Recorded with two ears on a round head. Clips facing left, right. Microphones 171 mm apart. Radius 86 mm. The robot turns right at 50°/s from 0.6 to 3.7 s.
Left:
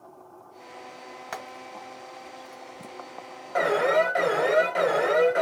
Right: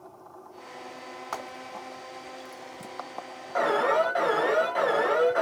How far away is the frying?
About 2.5 m.